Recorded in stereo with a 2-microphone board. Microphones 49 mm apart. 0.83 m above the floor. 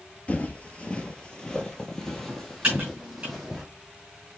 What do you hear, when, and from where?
0.3 s footsteps: 35° left (ahead or behind), 0.9 m; by 3.6 s centre (ahead or behind), 1.9 m
2.6 s typing on a keyboard: 25° right (ahead or behind), 4 m